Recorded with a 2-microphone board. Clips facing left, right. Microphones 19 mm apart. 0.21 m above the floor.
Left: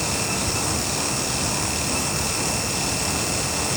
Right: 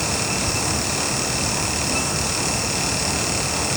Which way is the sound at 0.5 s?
50° left (ahead or behind).